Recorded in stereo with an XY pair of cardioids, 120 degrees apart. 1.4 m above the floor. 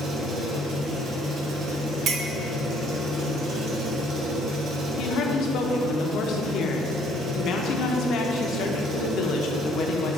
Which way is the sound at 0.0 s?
55° right.